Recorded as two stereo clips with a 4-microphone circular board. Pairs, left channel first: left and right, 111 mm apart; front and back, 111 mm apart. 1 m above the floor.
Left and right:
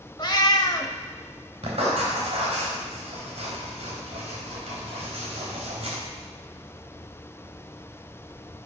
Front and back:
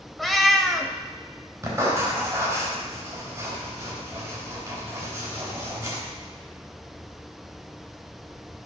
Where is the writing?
115° right, 3.5 m.